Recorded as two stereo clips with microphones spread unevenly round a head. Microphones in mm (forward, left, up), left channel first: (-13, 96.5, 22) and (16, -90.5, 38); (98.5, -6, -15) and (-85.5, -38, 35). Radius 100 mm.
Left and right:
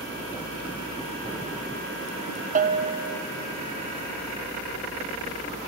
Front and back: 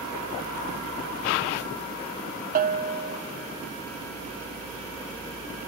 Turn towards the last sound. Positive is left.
turn(degrees=-125)